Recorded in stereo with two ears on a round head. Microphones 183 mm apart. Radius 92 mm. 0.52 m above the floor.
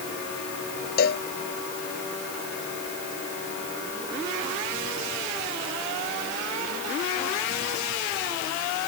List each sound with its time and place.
1.0 s a cowbell: 50° left (ahead or behind)